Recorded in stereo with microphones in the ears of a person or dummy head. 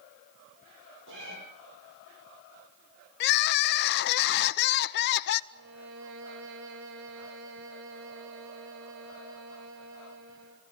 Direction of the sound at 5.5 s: 75° right (ahead or behind).